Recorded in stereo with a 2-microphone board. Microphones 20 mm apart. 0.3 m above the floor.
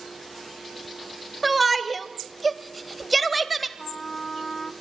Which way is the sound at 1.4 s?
Centre (ahead or behind).